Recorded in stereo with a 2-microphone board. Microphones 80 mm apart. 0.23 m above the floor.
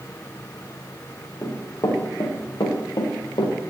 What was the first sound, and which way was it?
Running footsteps, 35° left (ahead or behind).